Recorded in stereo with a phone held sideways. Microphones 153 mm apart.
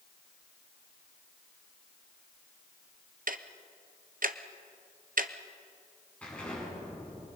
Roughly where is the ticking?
Right.